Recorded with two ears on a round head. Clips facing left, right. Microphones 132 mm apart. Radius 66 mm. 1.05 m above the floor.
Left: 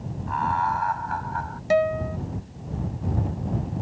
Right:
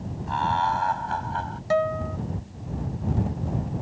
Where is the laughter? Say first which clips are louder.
Even; 35° right (ahead or behind); by 1.6 s 30° right (ahead or behind).